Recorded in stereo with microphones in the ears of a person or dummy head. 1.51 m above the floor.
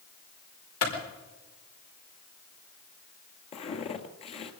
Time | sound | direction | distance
0.8 | a clap | 85° left | 5.5 m
3.5 | footsteps | 35° left (ahead or behind) | 1.9 m